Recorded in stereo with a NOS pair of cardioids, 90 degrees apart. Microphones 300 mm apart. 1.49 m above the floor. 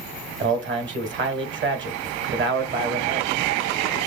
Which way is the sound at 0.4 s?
35° right.